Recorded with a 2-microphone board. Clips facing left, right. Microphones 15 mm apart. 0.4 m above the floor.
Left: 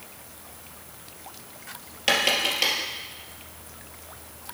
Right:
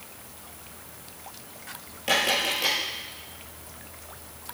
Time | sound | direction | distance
2.1 | tapping | 35° left (ahead or behind) | 2.5 m